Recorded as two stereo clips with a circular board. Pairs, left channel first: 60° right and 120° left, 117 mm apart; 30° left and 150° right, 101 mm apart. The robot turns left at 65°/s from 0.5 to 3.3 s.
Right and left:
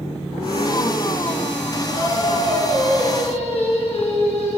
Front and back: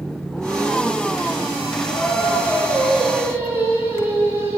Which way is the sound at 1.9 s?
10° left.